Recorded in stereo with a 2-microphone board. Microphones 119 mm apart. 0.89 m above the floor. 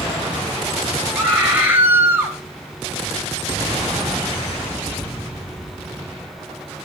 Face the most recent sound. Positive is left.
turn(degrees=-15)  # may be behind; listen again after turning